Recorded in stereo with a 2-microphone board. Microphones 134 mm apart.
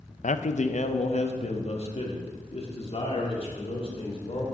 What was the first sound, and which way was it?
A man speaking, 70° left (ahead or behind).